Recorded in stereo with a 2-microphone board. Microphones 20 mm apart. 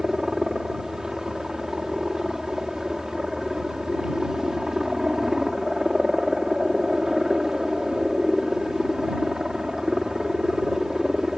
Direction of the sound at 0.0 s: 30° right (ahead or behind).